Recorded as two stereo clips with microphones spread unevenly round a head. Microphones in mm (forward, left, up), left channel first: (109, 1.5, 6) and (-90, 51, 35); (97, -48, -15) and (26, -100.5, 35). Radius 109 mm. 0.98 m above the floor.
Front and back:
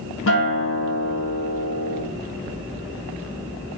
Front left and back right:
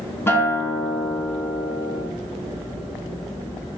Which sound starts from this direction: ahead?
A guitar, at 0.3 s.